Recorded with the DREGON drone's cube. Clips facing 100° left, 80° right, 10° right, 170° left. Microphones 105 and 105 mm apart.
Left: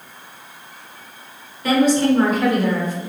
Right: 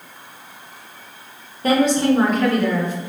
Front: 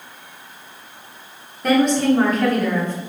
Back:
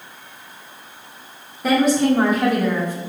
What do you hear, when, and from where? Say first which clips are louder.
1.6 s a woman speaking: left 1 dB, even; 105° right, 1.0 m; by 3.0 s 95° left, 1.0 m